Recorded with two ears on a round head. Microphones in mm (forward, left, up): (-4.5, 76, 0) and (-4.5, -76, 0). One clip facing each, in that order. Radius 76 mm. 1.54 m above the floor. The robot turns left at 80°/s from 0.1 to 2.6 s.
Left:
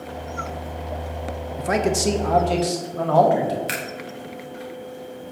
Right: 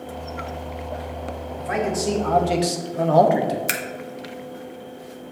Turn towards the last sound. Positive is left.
turn(degrees=-55)  # may be behind; listen again after turning